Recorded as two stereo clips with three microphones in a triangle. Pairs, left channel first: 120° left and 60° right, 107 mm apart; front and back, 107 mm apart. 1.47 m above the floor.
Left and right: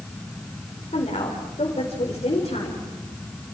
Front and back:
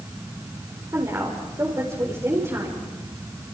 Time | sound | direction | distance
0.9 | a woman speaking | 120° left | 4 m